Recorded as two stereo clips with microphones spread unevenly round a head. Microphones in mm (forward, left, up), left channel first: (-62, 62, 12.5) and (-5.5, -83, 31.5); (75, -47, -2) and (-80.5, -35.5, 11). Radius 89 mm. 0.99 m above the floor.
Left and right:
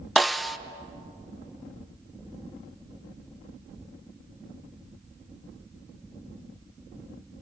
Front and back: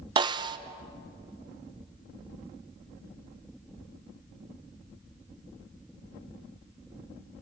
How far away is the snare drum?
About 0.6 m.